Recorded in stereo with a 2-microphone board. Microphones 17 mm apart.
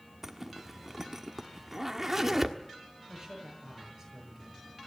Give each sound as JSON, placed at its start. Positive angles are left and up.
{"t": 0.2, "sound": "a zipper", "side_deg": -15, "distance_m": 1.4}
{"t": 3.1, "sound": "a man speaking", "side_deg": -20, "distance_m": 7.5}